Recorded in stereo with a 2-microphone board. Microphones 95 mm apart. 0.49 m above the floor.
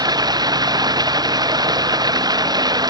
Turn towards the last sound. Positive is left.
turn(degrees=-45)  # may be behind; listen again after turning